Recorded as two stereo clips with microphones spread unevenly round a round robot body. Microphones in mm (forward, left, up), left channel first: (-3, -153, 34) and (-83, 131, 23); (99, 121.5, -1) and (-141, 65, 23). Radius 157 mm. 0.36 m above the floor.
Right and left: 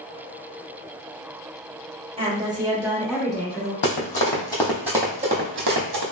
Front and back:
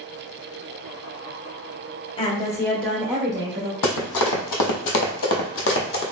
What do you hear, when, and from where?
2.2 s a woman speaking: 50° left, 1.1 m; by 3.7 s 145° right, 1.0 m
3.8 s running footsteps: 20° right, 1.0 m; by 6.0 s 65° left, 1.0 m